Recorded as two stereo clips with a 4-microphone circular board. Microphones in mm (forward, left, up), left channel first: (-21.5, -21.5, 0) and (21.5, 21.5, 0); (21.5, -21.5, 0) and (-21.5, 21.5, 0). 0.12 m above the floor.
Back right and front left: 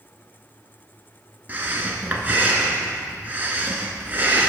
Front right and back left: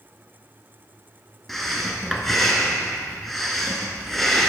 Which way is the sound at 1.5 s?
40° left.